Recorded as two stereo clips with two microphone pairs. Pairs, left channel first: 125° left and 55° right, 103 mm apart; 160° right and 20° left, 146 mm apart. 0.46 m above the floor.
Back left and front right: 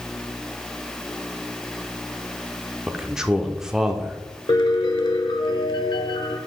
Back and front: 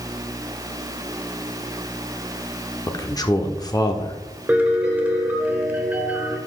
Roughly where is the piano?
Left.